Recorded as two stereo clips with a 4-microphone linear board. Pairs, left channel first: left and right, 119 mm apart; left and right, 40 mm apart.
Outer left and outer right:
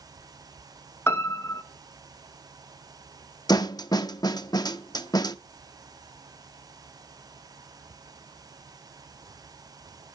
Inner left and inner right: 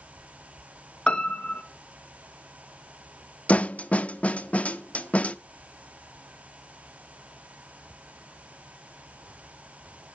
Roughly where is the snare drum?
Left.